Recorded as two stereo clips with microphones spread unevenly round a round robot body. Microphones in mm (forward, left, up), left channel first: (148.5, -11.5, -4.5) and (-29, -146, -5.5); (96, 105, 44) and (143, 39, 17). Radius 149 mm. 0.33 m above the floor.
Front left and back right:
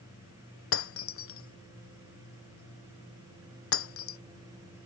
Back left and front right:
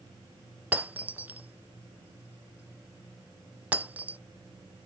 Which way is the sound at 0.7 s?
20° left.